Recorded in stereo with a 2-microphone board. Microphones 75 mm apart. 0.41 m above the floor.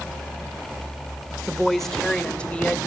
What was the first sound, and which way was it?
A woman speaking, 5° right (ahead or behind).